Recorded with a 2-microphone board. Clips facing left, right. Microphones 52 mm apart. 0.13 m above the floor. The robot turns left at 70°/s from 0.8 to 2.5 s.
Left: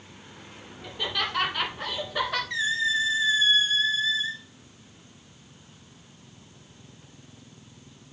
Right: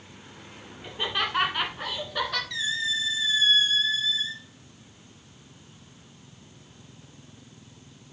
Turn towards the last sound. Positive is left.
turn(degrees=25)  # may be behind; listen again after turning